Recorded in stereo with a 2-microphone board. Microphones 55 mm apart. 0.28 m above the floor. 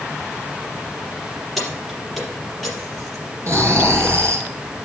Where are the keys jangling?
Centre (ahead or behind), 4.5 m.